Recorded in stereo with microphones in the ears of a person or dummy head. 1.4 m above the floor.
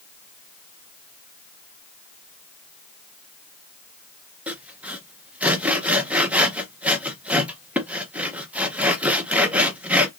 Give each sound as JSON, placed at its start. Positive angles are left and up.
{"t": 4.5, "sound": "sawing", "side_deg": -5, "distance_m": 0.7}